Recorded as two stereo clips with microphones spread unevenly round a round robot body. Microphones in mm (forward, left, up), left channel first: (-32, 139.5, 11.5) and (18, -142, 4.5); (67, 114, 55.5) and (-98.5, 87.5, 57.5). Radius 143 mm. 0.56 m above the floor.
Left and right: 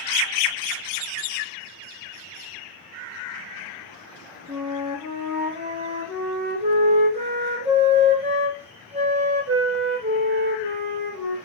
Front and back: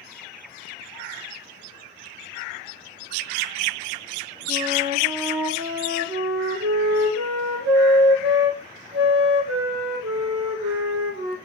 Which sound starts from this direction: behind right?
A flute, at 4.5 s.